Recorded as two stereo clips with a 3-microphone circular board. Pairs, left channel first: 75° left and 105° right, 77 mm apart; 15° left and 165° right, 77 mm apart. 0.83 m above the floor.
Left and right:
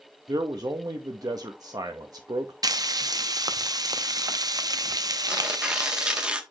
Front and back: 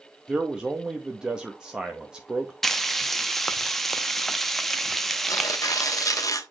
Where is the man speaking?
90° right, 0.7 m.